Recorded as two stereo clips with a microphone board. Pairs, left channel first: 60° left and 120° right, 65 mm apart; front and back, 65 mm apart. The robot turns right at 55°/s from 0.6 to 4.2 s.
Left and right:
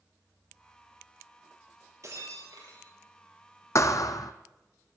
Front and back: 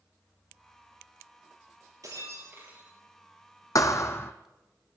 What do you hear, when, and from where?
2.0 s breaking glass: 155° right, 5 m; by 2.9 s 110° right, 5 m
3.8 s a thud: 25° left, 1.1 m; by 4.3 s 50° left, 1.1 m